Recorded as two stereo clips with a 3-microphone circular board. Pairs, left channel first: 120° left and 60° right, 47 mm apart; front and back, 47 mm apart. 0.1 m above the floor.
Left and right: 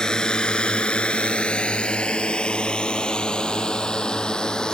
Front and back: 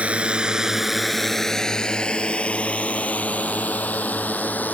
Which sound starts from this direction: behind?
A drone, at 0.0 s.